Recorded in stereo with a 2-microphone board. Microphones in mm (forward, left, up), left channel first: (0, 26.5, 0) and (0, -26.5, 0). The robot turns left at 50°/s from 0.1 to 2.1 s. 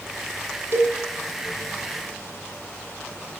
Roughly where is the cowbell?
Right.